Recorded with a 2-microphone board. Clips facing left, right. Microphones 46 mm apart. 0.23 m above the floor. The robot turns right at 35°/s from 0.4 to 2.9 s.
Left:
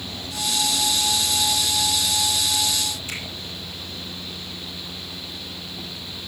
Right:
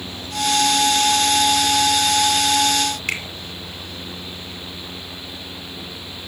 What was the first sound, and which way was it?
A finger snap, 60° right (ahead or behind).